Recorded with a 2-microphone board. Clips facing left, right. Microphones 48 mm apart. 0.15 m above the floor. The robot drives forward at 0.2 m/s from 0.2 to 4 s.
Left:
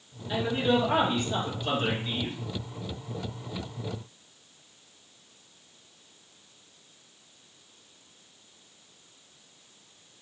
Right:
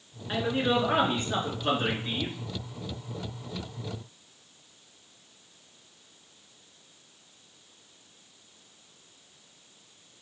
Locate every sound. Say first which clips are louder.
0.3 s a man speaking: left 1 dB; 45° right (ahead or behind), 1.5 m; by 2.3 s 40° right (ahead or behind), 1.7 m